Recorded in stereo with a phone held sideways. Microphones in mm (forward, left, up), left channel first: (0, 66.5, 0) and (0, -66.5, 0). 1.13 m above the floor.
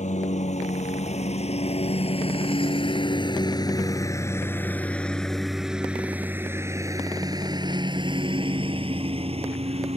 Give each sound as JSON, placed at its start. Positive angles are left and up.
{"t": 0.0, "sound": "a lawn mower", "side_deg": 65}